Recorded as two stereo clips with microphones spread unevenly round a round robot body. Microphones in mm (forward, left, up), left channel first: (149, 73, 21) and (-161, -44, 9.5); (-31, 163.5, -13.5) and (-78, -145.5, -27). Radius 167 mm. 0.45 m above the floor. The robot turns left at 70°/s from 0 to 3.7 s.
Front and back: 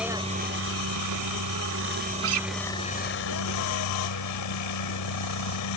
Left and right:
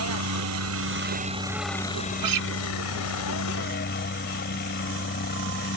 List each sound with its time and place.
0.0 s a helicopter: 70° right; by 5.8 s 30° left
2.2 s a guitar: 105° right; by 2.5 s 125° right